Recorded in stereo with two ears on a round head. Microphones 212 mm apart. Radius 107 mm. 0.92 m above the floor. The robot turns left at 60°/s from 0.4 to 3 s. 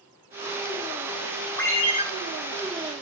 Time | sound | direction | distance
1.6 | a ringtone | 5° left (ahead or behind) | 1.5 m